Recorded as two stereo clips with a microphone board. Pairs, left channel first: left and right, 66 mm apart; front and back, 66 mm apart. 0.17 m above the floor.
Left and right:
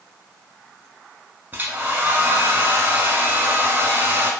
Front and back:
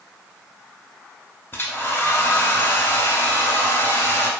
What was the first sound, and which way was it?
A hair dryer, 40° right.